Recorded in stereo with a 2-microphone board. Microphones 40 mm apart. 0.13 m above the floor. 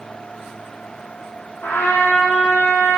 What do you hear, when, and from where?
1.6 s a trumpet: 70° left (ahead or behind), 1.2 m